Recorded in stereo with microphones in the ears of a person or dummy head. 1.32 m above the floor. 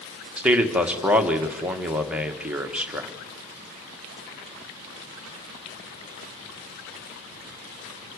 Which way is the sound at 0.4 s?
10° right (ahead or behind).